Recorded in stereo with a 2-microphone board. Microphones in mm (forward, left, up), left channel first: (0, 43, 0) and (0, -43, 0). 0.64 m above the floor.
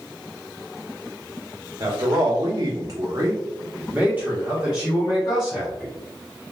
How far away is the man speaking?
About 1.1 m.